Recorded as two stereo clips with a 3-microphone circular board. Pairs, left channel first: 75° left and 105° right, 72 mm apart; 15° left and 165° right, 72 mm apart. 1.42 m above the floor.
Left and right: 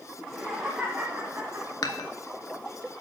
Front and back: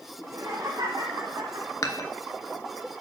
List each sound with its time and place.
0.2 s laughter: 160° left, 1.9 m; by 1.7 s 155° right, 1.6 m
1.8 s dishes clattering: 50° left, 1.0 m